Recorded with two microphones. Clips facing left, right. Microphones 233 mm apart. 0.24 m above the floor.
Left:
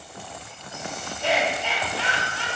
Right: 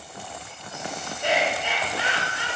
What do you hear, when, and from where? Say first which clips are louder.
1.2 s laughter: even; 20° right (ahead or behind), 1.7 m